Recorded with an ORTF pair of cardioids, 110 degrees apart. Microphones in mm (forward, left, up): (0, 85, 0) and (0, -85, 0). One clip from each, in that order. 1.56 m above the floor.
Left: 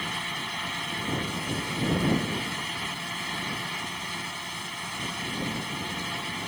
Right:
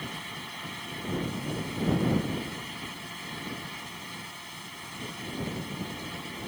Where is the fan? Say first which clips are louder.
Left 7 dB; 40° left.